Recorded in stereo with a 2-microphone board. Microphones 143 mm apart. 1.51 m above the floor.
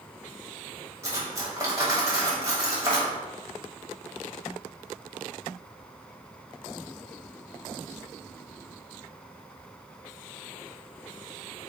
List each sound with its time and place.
1.0 s cutlery clinking: 20° right (ahead or behind), 0.9 m